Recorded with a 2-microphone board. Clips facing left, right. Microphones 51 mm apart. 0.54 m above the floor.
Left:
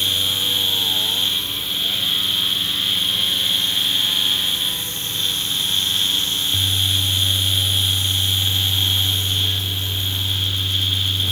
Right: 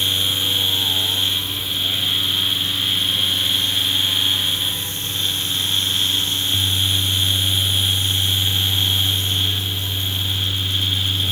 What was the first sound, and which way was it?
Only background noise.